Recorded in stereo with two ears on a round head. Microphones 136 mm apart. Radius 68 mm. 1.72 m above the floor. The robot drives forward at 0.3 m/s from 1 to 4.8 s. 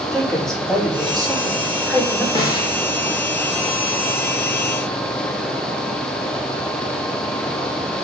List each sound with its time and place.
0.1 s a woman speaking: 5° left (ahead or behind), 5 m
2.4 s a snare drum: 30° left (ahead or behind), 2 m